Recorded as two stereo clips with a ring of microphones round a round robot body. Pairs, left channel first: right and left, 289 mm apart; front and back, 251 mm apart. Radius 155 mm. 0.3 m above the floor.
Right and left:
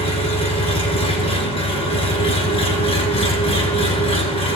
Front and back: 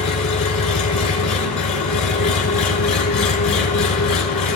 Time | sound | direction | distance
0.0 | an engine running | 20° right | 2.0 m